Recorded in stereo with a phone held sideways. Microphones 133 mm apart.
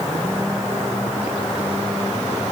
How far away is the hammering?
I don't hear hammering.